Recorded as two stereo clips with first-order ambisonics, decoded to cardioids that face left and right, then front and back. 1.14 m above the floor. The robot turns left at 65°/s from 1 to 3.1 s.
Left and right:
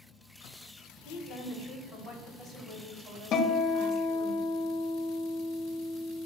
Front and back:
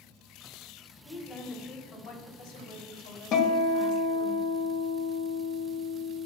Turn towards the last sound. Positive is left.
turn(degrees=45)